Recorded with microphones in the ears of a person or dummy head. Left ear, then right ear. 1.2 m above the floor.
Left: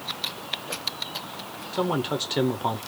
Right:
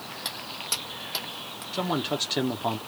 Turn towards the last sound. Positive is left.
turn(degrees=0)  # may be behind; listen again after turning